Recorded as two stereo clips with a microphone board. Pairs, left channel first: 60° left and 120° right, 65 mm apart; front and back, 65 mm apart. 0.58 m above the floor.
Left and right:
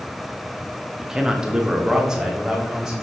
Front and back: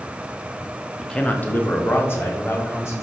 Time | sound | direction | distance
1.0 | a man speaking | 60° right | 0.8 m